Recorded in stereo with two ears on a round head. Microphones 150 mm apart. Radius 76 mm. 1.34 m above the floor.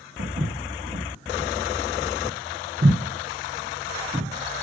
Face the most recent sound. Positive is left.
turn(degrees=-25)  # may be behind; listen again after turning